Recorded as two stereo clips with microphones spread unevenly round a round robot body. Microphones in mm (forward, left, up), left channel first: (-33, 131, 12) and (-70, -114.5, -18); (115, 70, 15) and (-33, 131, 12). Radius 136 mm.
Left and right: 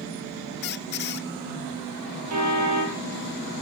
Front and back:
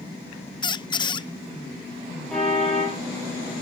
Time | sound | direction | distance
0.6 | a squeak | 35° left | 0.6 m
2.3 | a car horn | 110° right | 6 m